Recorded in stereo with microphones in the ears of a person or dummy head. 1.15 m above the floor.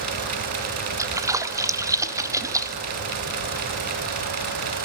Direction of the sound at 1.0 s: 15° right (ahead or behind).